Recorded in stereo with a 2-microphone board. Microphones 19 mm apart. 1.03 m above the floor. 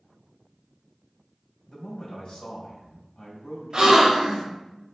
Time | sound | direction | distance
1.7 | a man speaking | 60° left (ahead or behind) | 1.9 m
3.7 | a gasp | 50° right (ahead or behind) | 1.5 m